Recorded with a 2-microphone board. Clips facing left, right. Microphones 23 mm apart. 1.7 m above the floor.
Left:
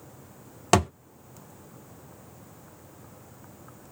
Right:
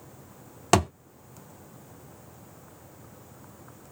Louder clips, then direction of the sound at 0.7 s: Even; 5° right (ahead or behind).